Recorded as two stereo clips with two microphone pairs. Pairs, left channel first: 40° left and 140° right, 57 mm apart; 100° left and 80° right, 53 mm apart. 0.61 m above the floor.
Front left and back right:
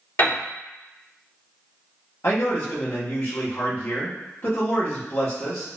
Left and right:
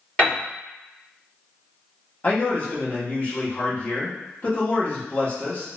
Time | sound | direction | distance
0.2 | a piano | 45° left | 1.7 m
2.2 | a man speaking | 55° left | 0.9 m